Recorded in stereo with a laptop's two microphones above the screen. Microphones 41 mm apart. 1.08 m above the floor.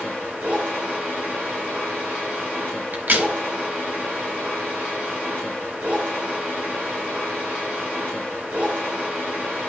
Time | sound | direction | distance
0.0 | a machine running | 40° right (ahead or behind) | 4.5 m
2.9 | a crack | 55° right (ahead or behind) | 1.4 m